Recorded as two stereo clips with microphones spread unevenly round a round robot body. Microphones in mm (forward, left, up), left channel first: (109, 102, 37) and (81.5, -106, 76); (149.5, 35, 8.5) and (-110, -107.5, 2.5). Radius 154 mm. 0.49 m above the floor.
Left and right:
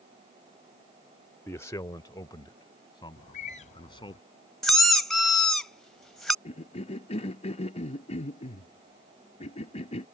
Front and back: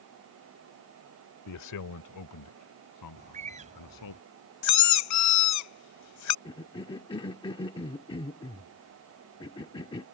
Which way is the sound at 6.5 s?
95° left.